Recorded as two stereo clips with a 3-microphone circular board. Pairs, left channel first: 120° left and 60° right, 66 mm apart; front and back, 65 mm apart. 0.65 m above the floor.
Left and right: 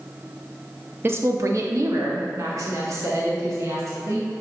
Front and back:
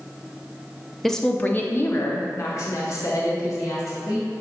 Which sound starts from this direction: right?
A woman speaking, at 1.0 s.